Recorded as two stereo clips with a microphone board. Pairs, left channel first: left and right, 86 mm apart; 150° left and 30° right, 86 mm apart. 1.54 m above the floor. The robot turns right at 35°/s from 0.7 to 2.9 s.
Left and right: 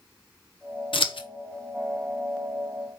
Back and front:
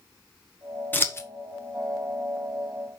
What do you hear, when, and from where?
0.9 s scissors: 80° left, 1.0 m; by 1.3 s 95° left, 1.0 m